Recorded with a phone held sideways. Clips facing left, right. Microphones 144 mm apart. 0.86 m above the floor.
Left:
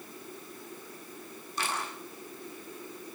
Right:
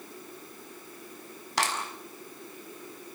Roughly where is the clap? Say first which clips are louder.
Right 4 dB; right.